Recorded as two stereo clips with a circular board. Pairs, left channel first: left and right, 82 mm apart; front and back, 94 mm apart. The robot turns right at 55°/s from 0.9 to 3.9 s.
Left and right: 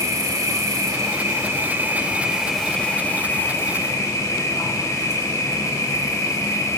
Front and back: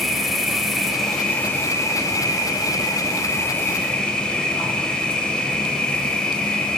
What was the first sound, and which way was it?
An insect, 90° right.